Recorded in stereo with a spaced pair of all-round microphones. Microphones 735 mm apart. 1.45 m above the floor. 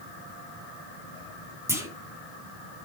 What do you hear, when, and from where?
1.7 s a clunk: 5° right (ahead or behind), 2.5 m